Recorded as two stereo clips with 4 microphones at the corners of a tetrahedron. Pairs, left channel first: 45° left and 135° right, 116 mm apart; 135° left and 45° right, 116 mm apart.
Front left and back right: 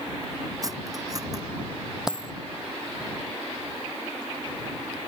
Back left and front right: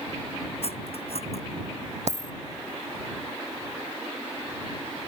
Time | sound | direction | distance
0.6 | cutlery clinking | 165° left | ?
2.1 | a dropped coin | 50° right | ?